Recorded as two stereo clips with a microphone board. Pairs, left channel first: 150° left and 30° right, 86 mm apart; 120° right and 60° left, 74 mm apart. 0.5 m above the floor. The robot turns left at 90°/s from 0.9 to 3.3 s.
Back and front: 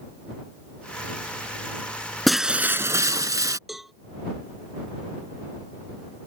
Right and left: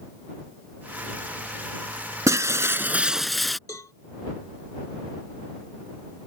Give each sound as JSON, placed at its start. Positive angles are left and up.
{"t": 2.3, "sound": "breaking glass", "azimuth_deg": 65}
{"t": 3.7, "sound": "a cowbell", "azimuth_deg": -115}